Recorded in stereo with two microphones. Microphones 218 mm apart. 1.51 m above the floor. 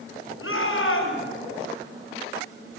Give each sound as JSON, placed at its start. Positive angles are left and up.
{"t": 0.4, "sound": "a shout", "side_deg": 75, "distance_m": 7.0}